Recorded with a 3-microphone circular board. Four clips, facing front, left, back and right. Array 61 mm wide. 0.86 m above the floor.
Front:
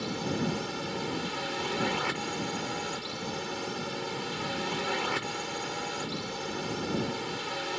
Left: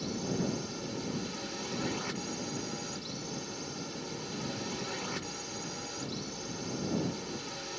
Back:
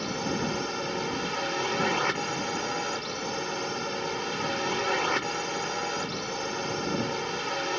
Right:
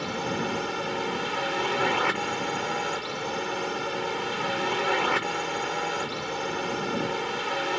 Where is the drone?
110° right.